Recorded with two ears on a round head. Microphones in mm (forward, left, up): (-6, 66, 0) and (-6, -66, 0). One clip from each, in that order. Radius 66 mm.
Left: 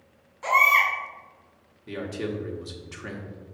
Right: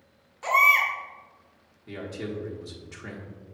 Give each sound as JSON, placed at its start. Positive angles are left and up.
{"t": 0.4, "sound": "a baby crying", "side_deg": -15, "distance_m": 2.0}
{"t": 1.9, "sound": "a man speaking", "side_deg": 10, "distance_m": 0.9}